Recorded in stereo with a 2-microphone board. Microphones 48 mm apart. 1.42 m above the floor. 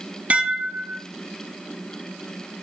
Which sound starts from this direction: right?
Dishes clattering, at 0.3 s.